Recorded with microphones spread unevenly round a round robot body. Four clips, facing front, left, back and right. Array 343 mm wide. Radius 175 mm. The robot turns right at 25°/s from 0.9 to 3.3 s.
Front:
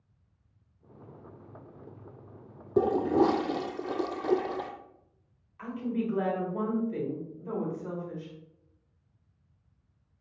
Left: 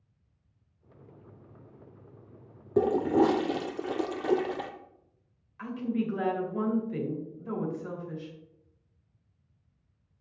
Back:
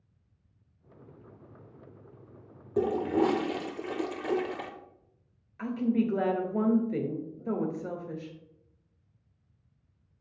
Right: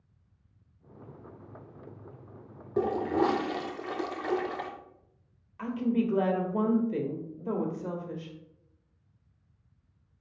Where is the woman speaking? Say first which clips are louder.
Right 3 dB, back 5 dB; 140° right, 1.6 m.